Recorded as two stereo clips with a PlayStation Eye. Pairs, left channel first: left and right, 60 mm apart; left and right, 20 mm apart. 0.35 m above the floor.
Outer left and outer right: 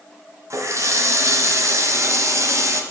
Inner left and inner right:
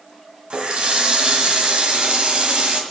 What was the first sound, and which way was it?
A running tap, 60° right (ahead or behind).